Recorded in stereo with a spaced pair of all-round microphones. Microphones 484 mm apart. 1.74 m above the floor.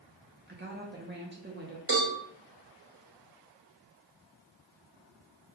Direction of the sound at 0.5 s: 20° right (ahead or behind).